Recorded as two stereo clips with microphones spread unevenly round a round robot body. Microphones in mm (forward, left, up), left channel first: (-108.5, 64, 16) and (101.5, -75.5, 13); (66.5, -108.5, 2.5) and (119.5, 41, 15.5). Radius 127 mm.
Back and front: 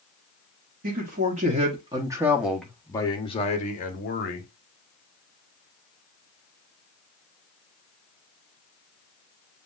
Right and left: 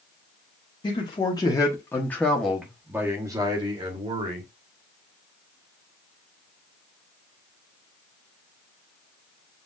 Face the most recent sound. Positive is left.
turn(degrees=115)